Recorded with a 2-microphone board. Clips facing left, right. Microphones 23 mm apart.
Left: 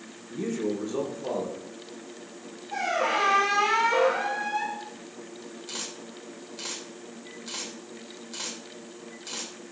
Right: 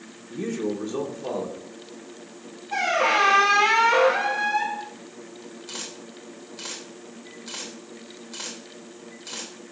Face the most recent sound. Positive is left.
turn(degrees=0)  # may be behind; listen again after turning